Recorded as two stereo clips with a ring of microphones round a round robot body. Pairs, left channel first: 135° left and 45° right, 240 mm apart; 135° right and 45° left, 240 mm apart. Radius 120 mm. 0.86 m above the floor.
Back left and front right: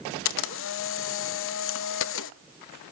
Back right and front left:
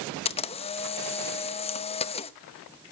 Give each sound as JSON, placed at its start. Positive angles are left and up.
{"t": 0.2, "sound": "a camera shutter", "azimuth_deg": 160, "distance_m": 0.7}